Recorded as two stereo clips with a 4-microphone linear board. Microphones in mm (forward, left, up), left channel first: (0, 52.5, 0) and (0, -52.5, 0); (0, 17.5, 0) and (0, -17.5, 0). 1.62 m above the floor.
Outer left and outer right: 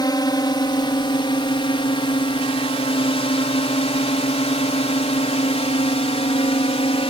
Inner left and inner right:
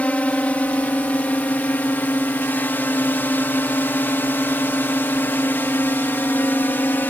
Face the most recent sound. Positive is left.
turn(degrees=65)  # may be behind; listen again after turning